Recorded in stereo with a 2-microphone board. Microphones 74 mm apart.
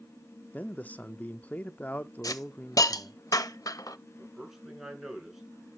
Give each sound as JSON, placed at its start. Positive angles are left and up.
{"t": 0.5, "sound": "a man speaking", "side_deg": 20, "distance_m": 0.7}
{"t": 2.2, "sound": "a hiss", "side_deg": 55, "distance_m": 0.7}
{"t": 4.2, "sound": "a man speaking", "side_deg": -5, "distance_m": 5.0}